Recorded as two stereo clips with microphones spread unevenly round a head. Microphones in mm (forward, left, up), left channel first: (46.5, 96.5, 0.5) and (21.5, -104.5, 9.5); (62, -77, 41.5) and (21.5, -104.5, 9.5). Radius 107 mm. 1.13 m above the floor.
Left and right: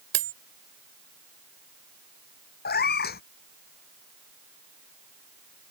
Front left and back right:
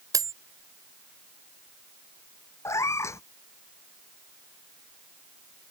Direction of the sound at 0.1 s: 145° right.